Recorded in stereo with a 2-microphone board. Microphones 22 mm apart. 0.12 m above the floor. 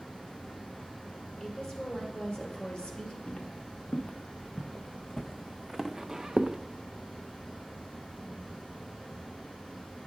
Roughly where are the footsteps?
Left.